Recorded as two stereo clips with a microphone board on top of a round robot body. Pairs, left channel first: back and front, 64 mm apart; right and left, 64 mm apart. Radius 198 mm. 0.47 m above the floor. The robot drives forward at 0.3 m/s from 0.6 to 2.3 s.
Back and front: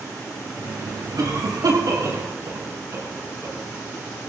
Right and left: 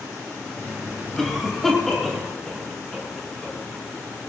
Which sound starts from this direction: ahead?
A cough, at 1.2 s.